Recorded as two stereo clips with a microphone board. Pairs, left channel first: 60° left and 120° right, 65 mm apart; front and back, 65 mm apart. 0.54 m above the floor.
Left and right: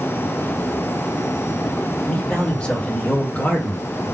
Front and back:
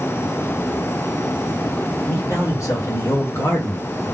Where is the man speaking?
10° right, 2.5 m; by 3.8 s 10° left, 1.5 m.